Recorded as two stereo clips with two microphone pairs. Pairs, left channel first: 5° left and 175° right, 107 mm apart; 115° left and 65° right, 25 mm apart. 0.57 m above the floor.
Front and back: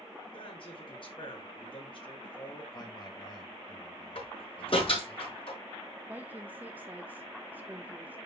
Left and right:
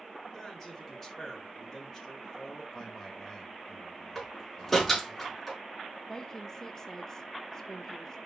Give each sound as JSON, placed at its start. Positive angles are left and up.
{"t": 0.3, "sound": "a man speaking", "azimuth_deg": 45, "distance_m": 5.5}
{"t": 2.7, "sound": "a man speaking", "azimuth_deg": 50, "distance_m": 3.5}
{"t": 4.2, "sound": "a door slam", "azimuth_deg": 40, "distance_m": 5.0}
{"t": 6.1, "sound": "a woman speaking", "azimuth_deg": 155, "distance_m": 0.6}